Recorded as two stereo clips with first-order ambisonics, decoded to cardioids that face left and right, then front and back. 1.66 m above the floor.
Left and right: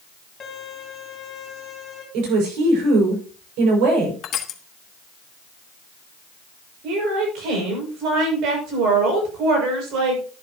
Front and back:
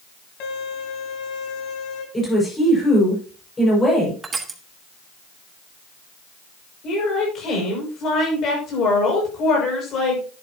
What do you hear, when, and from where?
0.4 s a violin: 20° left, 3 m
2.1 s a woman speaking: 75° right, 6 m
4.2 s crushing: 115° left, 1.2 m
6.8 s a woman speaking: 55° right, 6.5 m